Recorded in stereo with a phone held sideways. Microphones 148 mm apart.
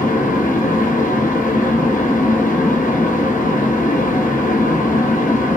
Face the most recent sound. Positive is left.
turn(degrees=60)  # may be behind; listen again after turning